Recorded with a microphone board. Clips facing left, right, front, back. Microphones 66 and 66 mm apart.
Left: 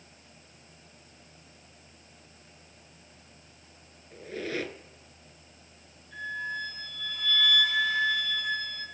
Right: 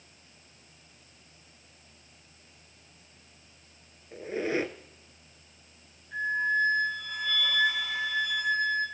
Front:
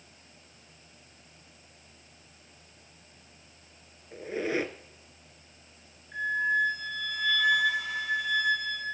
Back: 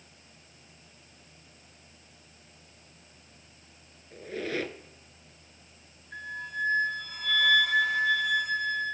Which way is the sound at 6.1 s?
160° right.